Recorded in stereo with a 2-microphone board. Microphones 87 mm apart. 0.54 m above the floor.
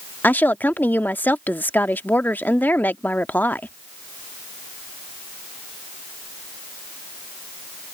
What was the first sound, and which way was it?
A woman speaking, 20° left (ahead or behind).